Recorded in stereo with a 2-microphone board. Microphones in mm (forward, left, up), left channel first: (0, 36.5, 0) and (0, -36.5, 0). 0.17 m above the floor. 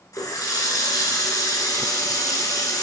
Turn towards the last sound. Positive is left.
turn(degrees=60)  # may be behind; listen again after turning